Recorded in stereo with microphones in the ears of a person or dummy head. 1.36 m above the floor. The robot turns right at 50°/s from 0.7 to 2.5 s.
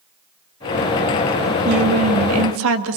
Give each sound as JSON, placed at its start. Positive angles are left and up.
{"t": 1.6, "sound": "a woman speaking", "azimuth_deg": -125, "distance_m": 2.0}